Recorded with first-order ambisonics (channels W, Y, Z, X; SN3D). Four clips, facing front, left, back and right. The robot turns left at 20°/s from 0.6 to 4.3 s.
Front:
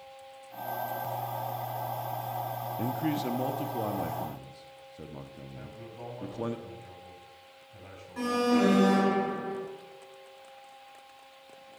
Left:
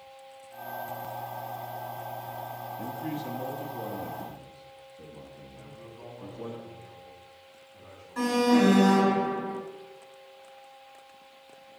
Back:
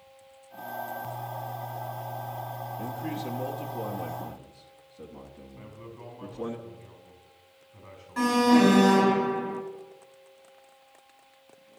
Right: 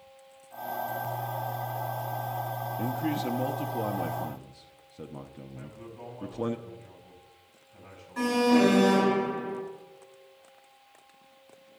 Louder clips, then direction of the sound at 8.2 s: Even, back 5 dB; 165° left.